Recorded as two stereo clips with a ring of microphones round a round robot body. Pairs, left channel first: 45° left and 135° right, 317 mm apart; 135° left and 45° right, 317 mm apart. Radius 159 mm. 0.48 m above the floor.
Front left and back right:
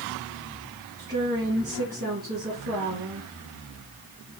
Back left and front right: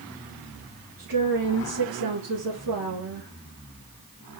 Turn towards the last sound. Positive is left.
turn(degrees=-70)